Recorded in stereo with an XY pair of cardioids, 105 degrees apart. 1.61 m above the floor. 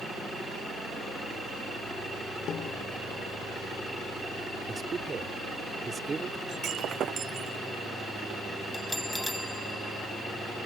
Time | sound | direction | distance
2.5 | a snare drum | 55° left | ?
4.7 | a man speaking | 35° right | ?
6.5 | breaking glass | 65° right | ?
8.7 | a bell | straight ahead | ?